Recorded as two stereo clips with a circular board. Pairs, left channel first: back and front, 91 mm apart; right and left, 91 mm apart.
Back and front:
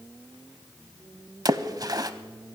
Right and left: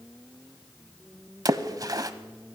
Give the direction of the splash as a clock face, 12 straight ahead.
10 o'clock.